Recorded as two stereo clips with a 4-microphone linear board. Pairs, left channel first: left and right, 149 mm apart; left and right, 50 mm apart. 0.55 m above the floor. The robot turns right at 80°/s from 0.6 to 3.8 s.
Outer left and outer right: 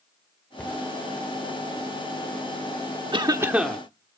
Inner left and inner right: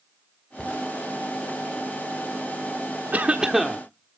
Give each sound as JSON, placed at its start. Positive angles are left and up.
{"t": 0.6, "sound": "a cupboard door", "side_deg": 10, "distance_m": 2.5}
{"t": 3.1, "sound": "a cough", "azimuth_deg": -45, "distance_m": 1.2}